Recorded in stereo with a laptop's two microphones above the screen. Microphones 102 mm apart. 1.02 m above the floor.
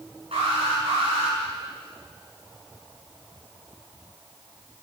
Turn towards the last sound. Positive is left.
turn(degrees=-75)  # may be behind; listen again after turning